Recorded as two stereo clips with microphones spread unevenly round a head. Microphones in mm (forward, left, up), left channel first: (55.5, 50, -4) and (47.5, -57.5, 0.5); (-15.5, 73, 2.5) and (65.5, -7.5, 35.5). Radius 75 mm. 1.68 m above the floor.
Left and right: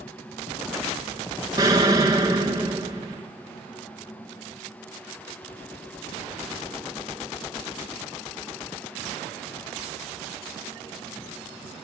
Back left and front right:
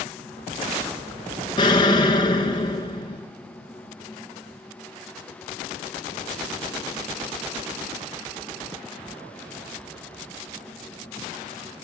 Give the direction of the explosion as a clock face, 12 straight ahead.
5 o'clock.